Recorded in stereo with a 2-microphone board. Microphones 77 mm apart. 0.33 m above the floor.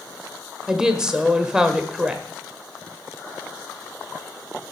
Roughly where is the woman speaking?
Centre.